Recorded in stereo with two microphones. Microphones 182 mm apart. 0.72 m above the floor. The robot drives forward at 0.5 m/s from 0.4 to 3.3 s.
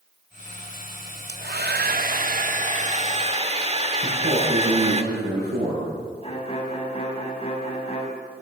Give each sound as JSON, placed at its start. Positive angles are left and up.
{"t": 1.3, "sound": "a hair dryer", "side_deg": -70, "distance_m": 0.9}
{"t": 4.0, "sound": "a man speaking", "side_deg": -70, "distance_m": 9.5}
{"t": 6.2, "sound": "a violin", "side_deg": 35, "distance_m": 5.0}